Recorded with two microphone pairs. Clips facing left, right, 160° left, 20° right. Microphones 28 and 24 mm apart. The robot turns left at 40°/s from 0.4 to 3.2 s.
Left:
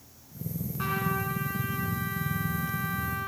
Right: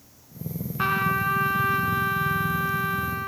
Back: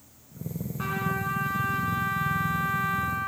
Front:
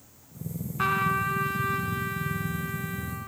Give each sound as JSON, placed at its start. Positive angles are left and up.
{"t": 0.8, "sound": "a trumpet", "azimuth_deg": -50, "distance_m": 0.9}